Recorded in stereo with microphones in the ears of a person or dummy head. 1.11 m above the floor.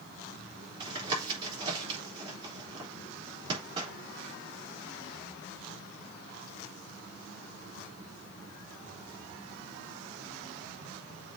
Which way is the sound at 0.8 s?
30° right (ahead or behind).